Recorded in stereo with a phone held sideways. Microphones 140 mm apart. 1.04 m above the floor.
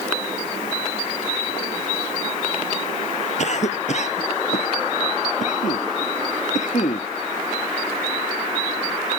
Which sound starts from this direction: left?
A cough, at 3.4 s.